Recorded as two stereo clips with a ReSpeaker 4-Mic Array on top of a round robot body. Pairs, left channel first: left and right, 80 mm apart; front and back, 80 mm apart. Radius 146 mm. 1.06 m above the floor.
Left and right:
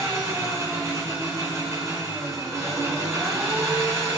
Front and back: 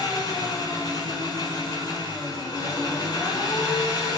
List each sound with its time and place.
0.0 s an engine running: 35° right, 9 m